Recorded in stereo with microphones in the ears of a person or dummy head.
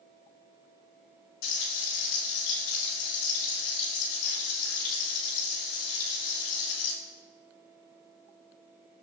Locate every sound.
1.4 s frying: 60° left (ahead or behind), 4.5 m